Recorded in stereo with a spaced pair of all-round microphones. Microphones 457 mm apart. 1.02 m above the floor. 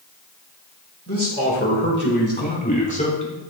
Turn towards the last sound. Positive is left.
turn(degrees=10)  # may be behind; listen again after turning